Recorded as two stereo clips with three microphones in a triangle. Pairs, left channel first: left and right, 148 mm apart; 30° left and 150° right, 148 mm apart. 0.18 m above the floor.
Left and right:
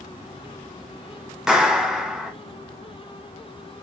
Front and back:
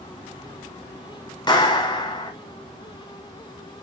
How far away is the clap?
About 1.2 m.